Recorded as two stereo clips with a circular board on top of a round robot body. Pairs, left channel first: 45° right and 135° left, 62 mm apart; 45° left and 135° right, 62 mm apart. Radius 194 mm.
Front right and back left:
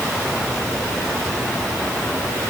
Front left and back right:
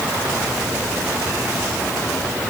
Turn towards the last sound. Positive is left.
No sound to turn to.